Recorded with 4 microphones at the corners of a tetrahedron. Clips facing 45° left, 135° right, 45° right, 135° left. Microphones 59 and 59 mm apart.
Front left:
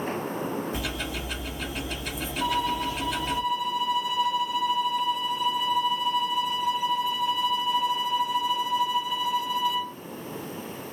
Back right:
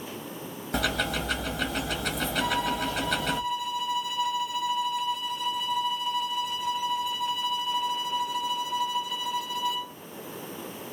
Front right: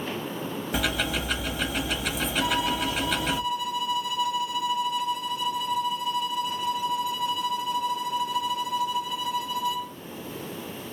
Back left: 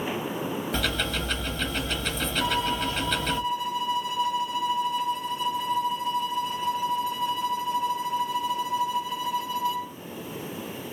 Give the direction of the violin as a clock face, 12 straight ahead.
8 o'clock.